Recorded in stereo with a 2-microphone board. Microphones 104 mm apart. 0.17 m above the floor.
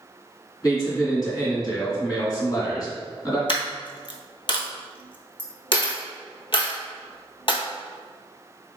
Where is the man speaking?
35° left (ahead or behind), 2.0 m.